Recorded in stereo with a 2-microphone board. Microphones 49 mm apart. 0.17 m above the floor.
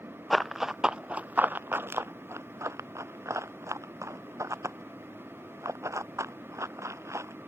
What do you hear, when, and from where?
0.3 s running footsteps: centre (ahead or behind); by 7.3 s 75° right (ahead or behind)